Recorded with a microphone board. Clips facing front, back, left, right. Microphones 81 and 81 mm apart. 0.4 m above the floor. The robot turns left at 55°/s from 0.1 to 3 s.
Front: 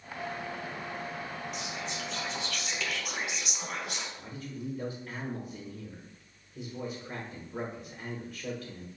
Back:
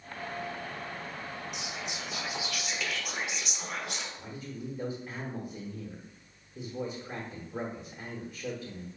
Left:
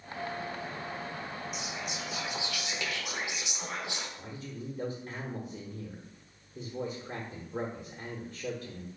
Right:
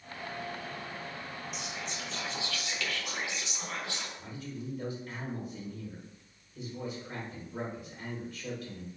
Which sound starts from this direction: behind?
Whispering, at 1.5 s.